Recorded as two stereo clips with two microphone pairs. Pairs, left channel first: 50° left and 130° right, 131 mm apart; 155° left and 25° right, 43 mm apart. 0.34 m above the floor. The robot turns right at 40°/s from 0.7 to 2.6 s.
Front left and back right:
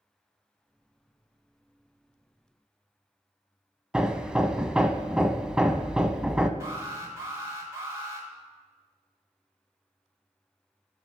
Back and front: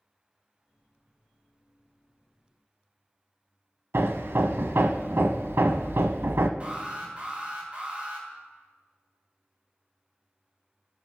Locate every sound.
3.9 s hammering: 45° right, 0.5 m
6.6 s an alarm: 70° right, 2 m